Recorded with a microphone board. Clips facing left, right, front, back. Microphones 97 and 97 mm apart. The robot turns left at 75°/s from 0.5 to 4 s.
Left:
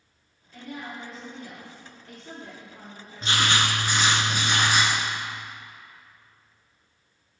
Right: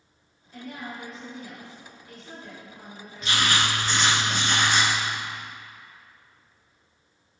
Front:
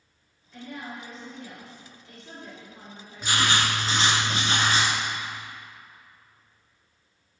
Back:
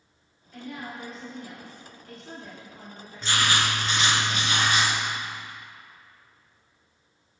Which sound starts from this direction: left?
Writing, at 3.2 s.